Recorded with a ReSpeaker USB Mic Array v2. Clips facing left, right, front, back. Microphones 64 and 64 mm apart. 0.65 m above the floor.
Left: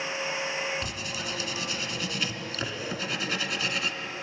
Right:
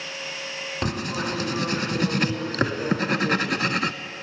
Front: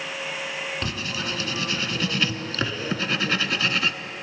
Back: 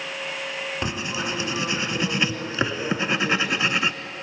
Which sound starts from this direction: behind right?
Writing, at 0.8 s.